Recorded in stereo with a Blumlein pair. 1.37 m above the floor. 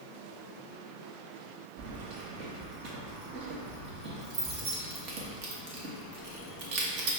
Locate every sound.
1.8 s keys jangling: 40° right, 0.9 m